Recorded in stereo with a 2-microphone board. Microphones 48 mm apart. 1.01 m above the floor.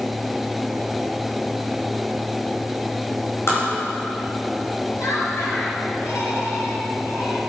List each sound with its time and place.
3.5 s tapping: 65° left (ahead or behind), 5.5 m
5.0 s laughter: 85° left, 4.5 m